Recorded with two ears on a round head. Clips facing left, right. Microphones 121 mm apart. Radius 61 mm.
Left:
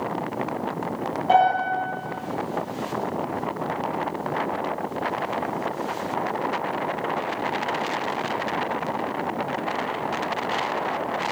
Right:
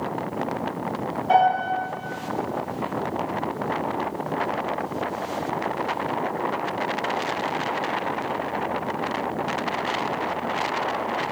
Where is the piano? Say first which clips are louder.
Even; 40° left (ahead or behind), 1.8 m.